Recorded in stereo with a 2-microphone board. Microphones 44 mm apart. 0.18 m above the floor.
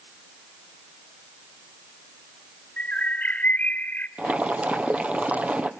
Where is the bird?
40° left (ahead or behind), 0.9 m.